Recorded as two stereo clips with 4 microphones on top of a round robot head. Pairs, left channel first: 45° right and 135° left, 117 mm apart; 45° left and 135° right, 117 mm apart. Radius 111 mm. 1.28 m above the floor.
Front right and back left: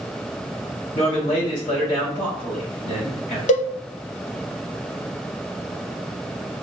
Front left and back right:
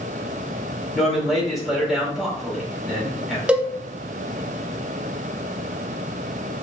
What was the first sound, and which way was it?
A man speaking, 45° right.